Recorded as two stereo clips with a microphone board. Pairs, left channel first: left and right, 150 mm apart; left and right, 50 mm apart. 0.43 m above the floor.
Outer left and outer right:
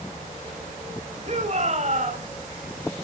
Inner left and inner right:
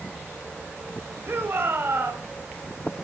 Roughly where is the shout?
Right.